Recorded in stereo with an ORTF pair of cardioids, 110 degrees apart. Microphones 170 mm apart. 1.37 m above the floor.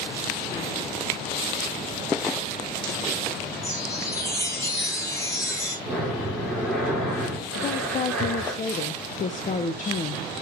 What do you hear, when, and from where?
3.6 s a chime: 15° left, 3 m
5.8 s breathing: straight ahead, 5 m
7.5 s a woman speaking: 45° left, 0.6 m